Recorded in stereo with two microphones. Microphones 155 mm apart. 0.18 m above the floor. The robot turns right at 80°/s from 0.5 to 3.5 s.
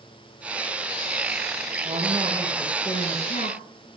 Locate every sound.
1.9 s a man speaking: 55° right, 4 m; by 4.0 s 80° left, 4 m